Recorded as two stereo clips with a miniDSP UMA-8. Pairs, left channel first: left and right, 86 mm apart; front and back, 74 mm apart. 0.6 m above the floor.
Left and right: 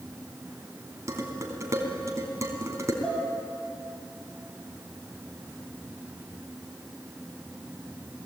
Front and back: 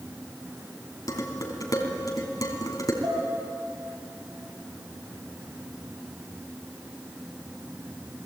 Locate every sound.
1.1 s dishes clattering: 35° right, 3.5 m
3.0 s dishes clattering: straight behind, 9.5 m